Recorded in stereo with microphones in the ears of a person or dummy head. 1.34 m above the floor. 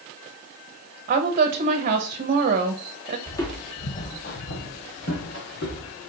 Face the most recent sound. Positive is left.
turn(degrees=55)  # may be behind; listen again after turning